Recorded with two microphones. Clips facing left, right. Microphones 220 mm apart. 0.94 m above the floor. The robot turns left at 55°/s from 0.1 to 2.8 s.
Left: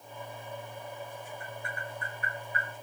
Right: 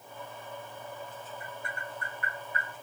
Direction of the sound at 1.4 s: 40° left (ahead or behind).